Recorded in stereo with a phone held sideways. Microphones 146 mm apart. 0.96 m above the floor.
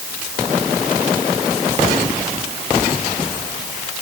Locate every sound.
Only background noise.